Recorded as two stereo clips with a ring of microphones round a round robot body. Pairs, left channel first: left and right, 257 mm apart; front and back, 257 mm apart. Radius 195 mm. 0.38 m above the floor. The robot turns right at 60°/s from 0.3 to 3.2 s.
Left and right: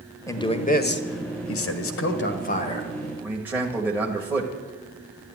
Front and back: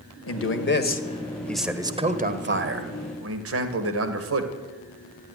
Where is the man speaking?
15° left, 1.7 m; by 4.5 s 175° right, 1.7 m.